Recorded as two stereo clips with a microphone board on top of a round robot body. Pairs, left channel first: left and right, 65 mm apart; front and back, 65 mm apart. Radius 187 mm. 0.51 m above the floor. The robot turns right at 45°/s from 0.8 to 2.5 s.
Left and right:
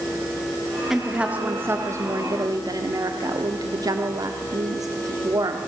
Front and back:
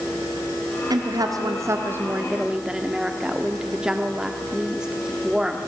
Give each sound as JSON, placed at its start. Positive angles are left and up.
{"t": 0.9, "sound": "a woman speaking", "azimuth_deg": -175, "distance_m": 1.6}